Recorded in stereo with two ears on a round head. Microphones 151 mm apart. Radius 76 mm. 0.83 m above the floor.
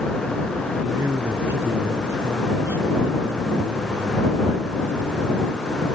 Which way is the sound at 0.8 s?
15° right (ahead or behind).